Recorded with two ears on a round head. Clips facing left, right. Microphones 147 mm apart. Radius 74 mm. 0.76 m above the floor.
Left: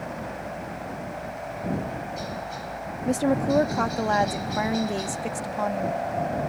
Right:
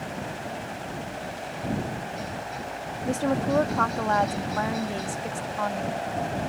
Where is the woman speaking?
20° left (ahead or behind).